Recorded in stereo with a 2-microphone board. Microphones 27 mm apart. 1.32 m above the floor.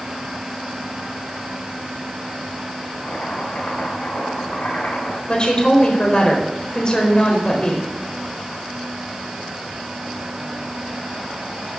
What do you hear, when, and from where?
3.0 s chopping: 65° left (ahead or behind), 6.5 m
5.3 s a woman speaking: 35° left (ahead or behind), 4.5 m